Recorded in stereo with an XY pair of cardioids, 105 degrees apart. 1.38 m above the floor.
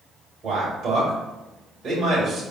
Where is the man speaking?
55° right, 1.8 m.